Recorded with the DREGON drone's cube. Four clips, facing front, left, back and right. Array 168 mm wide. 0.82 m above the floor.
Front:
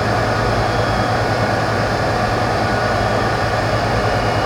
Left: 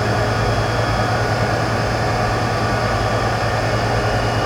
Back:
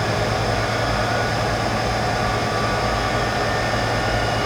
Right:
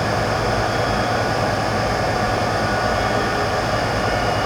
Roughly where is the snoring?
I don't hear snoring.